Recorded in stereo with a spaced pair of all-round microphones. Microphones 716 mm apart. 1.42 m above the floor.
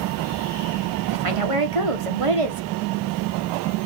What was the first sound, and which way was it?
A woman speaking, 45° right (ahead or behind).